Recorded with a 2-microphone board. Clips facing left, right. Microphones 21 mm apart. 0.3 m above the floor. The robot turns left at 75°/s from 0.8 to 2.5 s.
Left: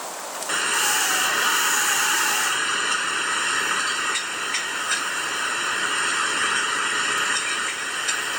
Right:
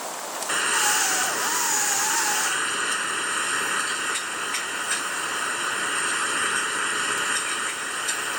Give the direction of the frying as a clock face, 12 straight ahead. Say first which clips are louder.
Left 1 dB; 7 o'clock.